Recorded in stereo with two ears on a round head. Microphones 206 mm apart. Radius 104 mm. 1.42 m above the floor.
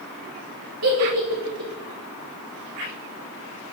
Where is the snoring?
No snoring in this recording.